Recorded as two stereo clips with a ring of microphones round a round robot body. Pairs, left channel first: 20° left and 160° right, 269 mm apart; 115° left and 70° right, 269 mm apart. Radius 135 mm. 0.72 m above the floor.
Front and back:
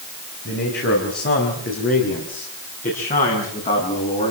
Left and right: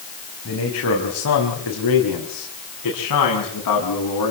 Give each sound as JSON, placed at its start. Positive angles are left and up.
{"t": 0.5, "sound": "a man speaking", "azimuth_deg": 75, "distance_m": 5.0}